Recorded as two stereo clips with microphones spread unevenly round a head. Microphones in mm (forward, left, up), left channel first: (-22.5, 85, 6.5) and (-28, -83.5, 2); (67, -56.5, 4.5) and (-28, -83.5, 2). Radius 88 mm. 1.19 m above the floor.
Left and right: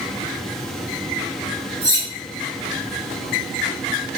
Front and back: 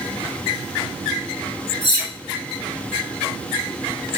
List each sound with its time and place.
1.8 s cutlery clinking: 20° right, 1.3 m